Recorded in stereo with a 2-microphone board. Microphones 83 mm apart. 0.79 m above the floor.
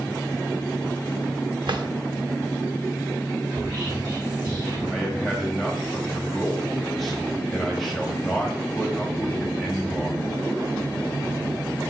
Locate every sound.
1.7 s a drawer: 65° right (ahead or behind), 0.6 m
3.5 s whispering: 60° right (ahead or behind), 1.7 m
4.9 s a man speaking: centre (ahead or behind), 1.7 m